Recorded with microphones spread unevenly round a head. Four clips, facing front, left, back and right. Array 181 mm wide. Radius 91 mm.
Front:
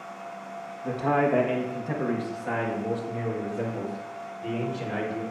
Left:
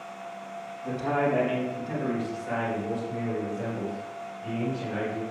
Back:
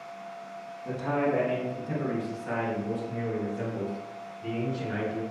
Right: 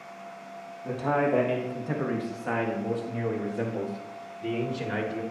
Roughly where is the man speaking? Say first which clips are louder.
Right 1 dB, front 4 dB; ahead.